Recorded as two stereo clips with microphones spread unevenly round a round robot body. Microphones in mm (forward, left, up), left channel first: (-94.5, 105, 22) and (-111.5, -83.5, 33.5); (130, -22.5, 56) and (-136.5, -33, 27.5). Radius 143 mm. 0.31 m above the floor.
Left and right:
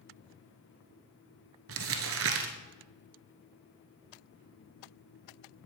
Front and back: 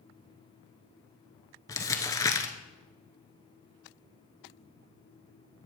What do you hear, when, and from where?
1.7 s crumpling: 75° right, 0.9 m